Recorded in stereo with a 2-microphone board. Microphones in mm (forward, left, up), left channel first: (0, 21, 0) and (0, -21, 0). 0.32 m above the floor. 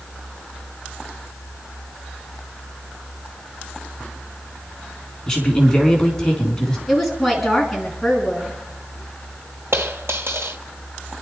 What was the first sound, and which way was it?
A man speaking, 15° left (ahead or behind).